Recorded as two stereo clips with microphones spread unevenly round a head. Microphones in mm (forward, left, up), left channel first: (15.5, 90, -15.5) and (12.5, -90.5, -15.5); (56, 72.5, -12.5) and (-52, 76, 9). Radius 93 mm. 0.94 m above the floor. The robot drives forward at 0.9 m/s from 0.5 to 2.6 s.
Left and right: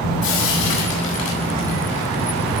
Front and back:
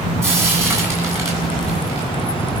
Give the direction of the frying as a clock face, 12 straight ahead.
8 o'clock.